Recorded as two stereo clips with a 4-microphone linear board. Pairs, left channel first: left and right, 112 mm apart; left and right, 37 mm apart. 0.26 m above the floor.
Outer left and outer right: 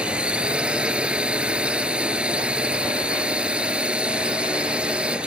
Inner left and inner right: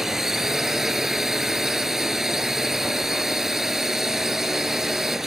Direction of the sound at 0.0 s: 10° right (ahead or behind).